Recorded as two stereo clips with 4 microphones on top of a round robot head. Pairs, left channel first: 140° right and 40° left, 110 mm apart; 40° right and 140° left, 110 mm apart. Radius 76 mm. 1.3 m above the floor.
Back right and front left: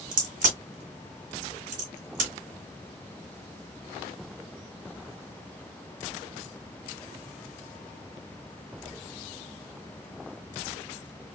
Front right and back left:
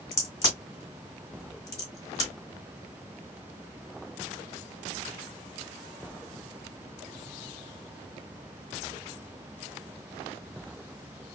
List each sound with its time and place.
0.1 s a crack: 20° left, 1.9 m